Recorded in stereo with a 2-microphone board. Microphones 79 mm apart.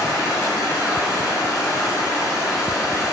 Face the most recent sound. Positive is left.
turn(degrees=45)  # may be behind; listen again after turning